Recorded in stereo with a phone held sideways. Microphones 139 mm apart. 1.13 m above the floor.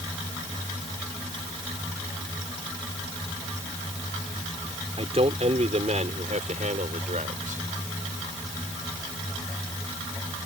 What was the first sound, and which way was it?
A man speaking, 50° right (ahead or behind).